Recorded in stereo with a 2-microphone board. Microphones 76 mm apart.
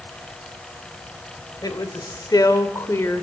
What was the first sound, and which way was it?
A woman speaking, 55° left (ahead or behind).